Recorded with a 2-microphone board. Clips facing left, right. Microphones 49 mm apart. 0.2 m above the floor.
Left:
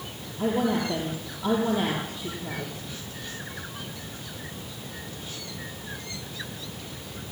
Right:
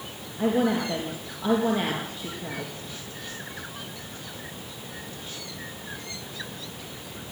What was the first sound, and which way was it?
A woman speaking, 55° right (ahead or behind).